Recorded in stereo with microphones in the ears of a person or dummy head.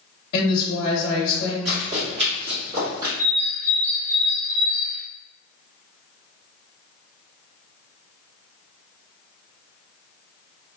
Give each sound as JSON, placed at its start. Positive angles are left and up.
{"t": 0.3, "sound": "a woman speaking", "side_deg": 55, "distance_m": 0.9}
{"t": 1.6, "sound": "running footsteps", "side_deg": -35, "distance_m": 1.6}
{"t": 3.2, "sound": "a bird", "side_deg": -15, "distance_m": 0.9}